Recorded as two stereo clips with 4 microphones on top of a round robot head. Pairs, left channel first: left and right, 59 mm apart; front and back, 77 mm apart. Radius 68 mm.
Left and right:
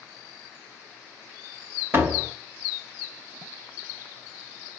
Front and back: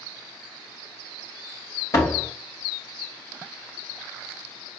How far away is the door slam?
About 1.8 m.